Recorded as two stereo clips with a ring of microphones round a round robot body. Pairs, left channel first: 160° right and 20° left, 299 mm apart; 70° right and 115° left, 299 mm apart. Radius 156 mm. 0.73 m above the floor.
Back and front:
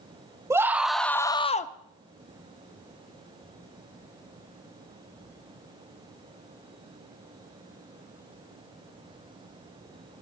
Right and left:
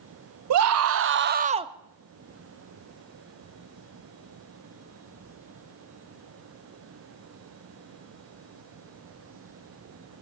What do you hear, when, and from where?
0.5 s a scream: 100° left, 1.1 m; by 1.7 s straight behind, 0.8 m